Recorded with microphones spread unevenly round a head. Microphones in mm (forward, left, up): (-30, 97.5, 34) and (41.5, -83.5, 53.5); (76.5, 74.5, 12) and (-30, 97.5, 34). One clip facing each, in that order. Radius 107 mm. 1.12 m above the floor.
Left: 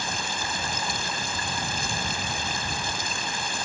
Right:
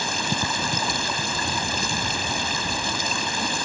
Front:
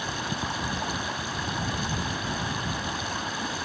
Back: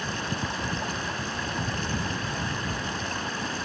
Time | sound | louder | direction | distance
0.0 | running water | right 5 dB, even | 95° right | ?